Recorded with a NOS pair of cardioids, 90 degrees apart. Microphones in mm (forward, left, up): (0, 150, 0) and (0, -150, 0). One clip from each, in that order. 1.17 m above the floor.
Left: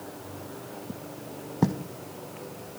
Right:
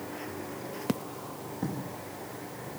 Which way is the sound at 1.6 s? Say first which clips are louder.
Left 9 dB; 65° left.